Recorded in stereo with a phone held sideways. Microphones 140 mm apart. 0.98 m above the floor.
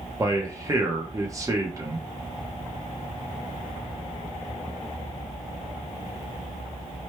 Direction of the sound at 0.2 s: 25° right (ahead or behind).